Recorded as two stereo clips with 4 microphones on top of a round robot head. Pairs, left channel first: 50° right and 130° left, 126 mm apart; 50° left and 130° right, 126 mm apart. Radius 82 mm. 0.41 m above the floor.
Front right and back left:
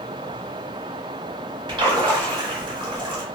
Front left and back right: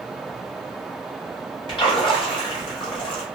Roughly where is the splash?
Left.